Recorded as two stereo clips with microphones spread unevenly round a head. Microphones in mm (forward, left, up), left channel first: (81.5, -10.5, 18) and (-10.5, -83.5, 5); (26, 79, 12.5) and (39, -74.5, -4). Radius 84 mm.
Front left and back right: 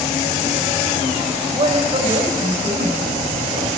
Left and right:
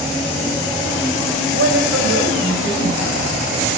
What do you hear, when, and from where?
1.5 s a woman speaking: 95° right, 5.5 m